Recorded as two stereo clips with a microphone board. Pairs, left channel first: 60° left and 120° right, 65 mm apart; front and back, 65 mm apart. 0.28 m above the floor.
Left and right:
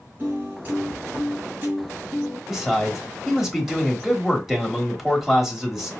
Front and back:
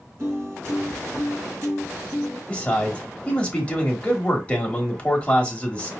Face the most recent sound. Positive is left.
turn(degrees=-35)